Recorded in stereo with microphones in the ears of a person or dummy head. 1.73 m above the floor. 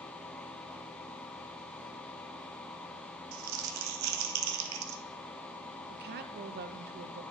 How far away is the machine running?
About 1.0 m.